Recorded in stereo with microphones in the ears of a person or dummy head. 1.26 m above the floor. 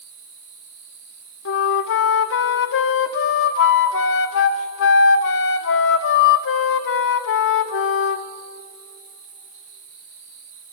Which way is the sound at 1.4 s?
60° left (ahead or behind).